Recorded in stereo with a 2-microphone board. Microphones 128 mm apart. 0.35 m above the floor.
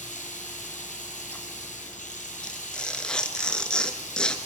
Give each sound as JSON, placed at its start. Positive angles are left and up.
{"t": 0.0, "sound": "running water", "side_deg": 80, "distance_m": 4.0}
{"t": 2.4, "sound": "tearing paper", "side_deg": 5, "distance_m": 1.8}